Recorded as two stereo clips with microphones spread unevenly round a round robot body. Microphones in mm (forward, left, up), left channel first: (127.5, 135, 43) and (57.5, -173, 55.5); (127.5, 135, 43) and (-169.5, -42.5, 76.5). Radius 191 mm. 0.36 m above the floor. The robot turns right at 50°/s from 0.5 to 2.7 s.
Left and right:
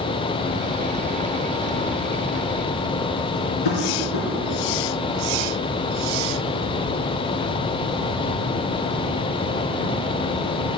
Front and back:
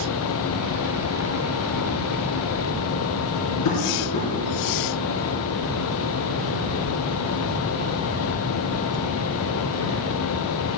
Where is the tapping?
70° left, 3 m.